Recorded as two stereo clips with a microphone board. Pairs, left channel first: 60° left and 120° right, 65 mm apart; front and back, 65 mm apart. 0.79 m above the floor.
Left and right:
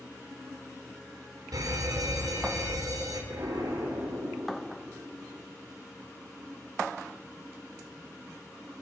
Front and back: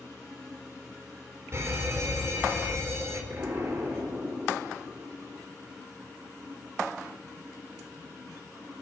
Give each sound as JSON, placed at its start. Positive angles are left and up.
{"t": 1.5, "sound": "an alarm", "azimuth_deg": -135, "distance_m": 3.5}
{"t": 3.3, "sound": "an explosion", "azimuth_deg": -130, "distance_m": 8.5}